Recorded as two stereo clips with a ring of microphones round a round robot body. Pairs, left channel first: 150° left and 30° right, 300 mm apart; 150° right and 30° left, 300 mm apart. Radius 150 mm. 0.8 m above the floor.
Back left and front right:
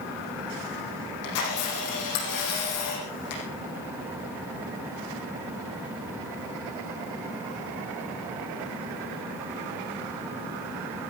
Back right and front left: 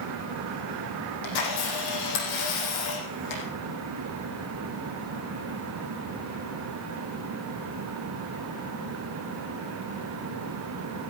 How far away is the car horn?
No car horn in this recording.